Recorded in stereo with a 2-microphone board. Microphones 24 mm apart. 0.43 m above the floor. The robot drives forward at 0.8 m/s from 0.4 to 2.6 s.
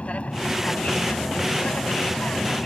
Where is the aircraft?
60° left (ahead or behind).